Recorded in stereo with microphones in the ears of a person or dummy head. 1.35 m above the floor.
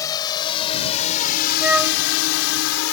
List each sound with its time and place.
0.0 s a drone: 20° left (ahead or behind); by 2.9 s 80° left
1.6 s a flute: 10° right (ahead or behind)